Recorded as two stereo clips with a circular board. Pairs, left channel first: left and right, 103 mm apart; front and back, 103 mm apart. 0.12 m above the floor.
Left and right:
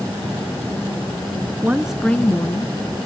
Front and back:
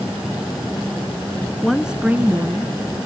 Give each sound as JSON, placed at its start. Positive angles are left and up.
{"t": 1.6, "sound": "a woman speaking", "azimuth_deg": -90, "distance_m": 1.1}